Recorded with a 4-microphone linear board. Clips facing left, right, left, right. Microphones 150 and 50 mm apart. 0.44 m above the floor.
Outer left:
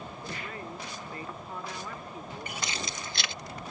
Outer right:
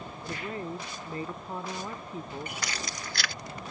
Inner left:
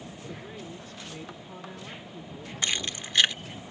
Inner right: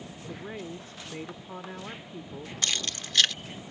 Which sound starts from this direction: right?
A woman speaking, at 0.2 s.